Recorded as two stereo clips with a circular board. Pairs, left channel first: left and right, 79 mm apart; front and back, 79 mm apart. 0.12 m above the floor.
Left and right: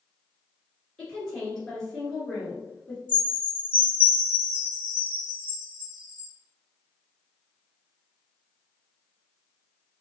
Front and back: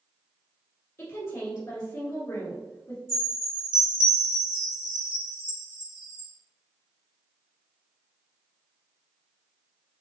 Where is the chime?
120° right, 1.7 m.